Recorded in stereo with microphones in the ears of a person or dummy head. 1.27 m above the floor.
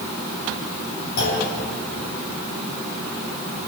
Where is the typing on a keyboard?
No typing on a keyboard in this recording.